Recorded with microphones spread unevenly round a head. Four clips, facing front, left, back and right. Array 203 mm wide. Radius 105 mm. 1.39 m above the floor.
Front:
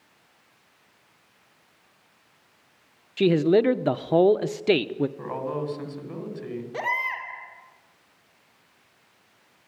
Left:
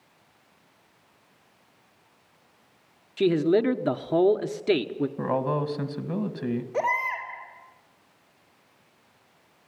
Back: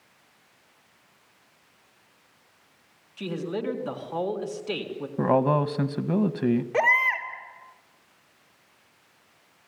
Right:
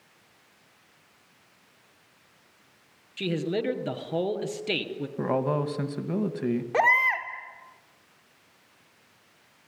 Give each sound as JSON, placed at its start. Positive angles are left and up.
{"t": 3.2, "sound": "a man speaking", "azimuth_deg": 20, "distance_m": 0.9}
{"t": 5.2, "sound": "a man speaking", "azimuth_deg": -170, "distance_m": 2.0}
{"t": 6.7, "sound": "a baby crying", "azimuth_deg": -105, "distance_m": 3.0}